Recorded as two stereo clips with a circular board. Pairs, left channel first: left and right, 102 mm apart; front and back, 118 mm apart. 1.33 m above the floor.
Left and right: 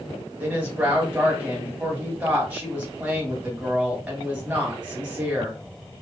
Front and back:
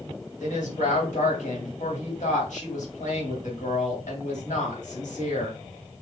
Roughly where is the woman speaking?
Ahead.